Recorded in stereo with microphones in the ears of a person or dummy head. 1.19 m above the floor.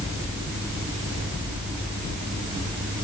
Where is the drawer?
No drawer in this recording.